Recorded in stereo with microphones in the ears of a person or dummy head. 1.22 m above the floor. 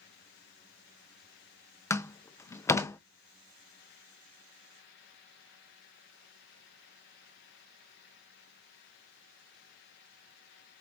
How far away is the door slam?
About 0.6 m.